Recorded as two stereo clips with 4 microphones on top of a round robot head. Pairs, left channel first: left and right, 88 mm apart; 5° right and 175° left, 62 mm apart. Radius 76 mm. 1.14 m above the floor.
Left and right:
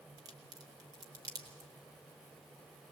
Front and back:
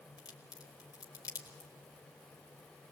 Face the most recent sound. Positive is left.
turn(degrees=-40)